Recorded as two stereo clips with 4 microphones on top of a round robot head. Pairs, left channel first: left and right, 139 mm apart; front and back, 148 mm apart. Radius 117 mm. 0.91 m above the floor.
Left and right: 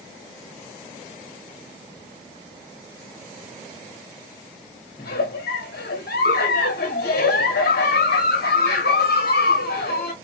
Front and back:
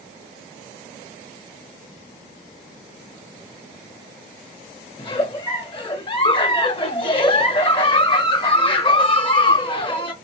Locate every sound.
5.0 s a giggle: 55° left, 0.7 m